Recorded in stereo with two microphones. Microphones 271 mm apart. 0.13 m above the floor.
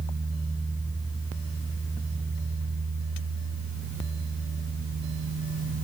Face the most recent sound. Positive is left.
No sound to turn to.